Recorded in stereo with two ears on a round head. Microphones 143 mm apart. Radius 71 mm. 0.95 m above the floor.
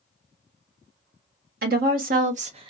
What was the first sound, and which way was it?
A woman speaking, 65° right (ahead or behind).